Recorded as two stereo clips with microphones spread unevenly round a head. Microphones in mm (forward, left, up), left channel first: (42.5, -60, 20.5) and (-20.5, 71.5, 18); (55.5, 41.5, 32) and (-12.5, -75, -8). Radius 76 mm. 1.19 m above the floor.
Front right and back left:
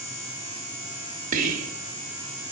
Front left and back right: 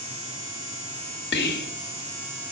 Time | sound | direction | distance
1.3 | whispering | 80° left | 1.1 m